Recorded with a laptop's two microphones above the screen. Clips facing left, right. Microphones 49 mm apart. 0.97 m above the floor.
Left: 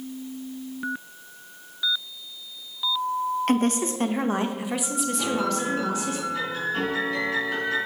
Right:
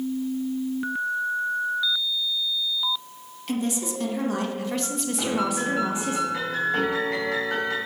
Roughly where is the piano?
Right.